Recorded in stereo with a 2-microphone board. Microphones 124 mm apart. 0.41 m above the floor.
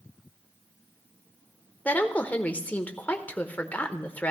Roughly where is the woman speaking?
Centre.